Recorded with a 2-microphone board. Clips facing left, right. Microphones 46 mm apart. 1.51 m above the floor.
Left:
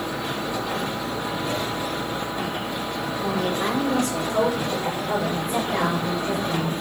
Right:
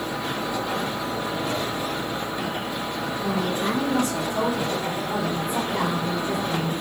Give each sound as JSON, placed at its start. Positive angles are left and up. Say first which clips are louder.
{"t": 3.2, "sound": "a woman speaking", "louder": "left 1 dB", "side_deg": 85, "distance_m": 8.0}